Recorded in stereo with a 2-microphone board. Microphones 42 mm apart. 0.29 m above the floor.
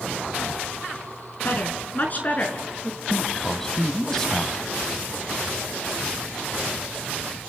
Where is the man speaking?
10° left (ahead or behind), 1.4 m.